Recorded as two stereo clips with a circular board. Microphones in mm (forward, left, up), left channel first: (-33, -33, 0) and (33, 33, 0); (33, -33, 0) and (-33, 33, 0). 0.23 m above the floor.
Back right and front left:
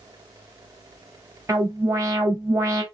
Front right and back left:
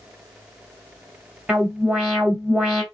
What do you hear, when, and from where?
1.5 s an alarm: 65° left, 2.5 m